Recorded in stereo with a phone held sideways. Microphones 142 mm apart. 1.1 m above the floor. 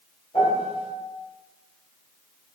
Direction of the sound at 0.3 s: 40° left (ahead or behind).